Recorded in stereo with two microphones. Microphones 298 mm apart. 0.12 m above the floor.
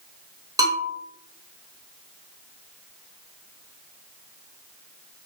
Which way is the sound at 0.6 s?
10° right (ahead or behind).